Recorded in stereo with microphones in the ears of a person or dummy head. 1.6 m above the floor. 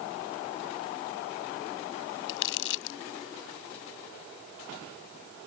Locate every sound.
2.3 s crumpling: 70° left (ahead or behind)